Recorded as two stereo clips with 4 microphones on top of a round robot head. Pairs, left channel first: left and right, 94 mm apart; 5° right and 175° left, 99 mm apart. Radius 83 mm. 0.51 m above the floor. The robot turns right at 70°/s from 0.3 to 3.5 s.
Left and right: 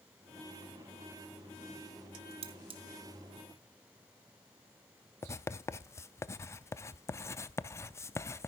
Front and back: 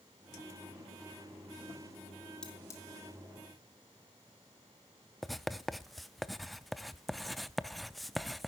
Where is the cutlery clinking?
85° right, 1.4 m; by 2.8 s 60° right, 1.4 m.